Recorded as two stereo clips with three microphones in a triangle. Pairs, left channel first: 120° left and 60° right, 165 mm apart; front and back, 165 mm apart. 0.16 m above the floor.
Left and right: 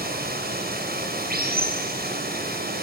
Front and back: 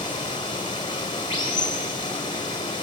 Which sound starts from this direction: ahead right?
Running water, at 0.0 s.